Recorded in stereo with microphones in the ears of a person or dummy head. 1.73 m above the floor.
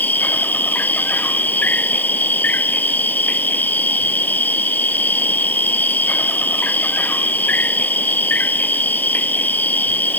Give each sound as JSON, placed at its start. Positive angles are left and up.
{"t": 0.0, "sound": "an insect", "side_deg": 5}